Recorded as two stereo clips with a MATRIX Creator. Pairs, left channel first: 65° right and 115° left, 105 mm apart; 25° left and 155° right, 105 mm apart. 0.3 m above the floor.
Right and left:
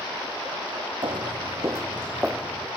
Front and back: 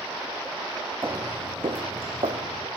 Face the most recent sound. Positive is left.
turn(degrees=-165)